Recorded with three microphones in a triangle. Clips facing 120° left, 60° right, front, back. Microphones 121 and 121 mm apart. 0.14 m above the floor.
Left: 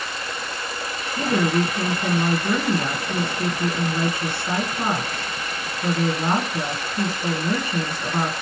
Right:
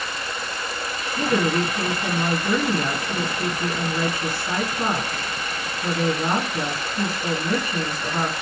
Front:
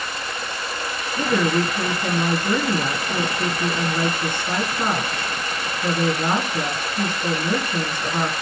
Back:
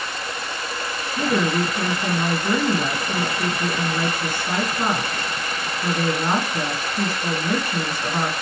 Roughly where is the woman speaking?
Left.